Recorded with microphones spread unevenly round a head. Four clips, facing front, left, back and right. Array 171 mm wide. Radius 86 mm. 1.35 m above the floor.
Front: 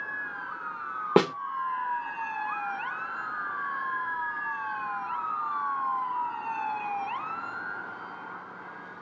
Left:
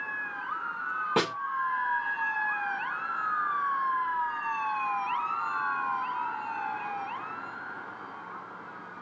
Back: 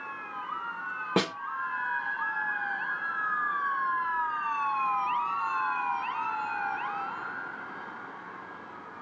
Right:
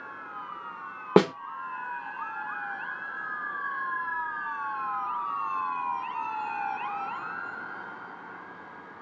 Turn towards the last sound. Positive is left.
turn(degrees=-60)